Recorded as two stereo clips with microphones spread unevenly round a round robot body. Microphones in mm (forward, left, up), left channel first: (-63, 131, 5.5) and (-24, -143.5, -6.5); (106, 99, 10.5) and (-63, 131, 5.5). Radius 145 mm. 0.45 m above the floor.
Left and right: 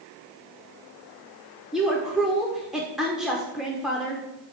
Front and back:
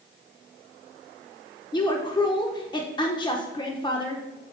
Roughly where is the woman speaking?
Ahead.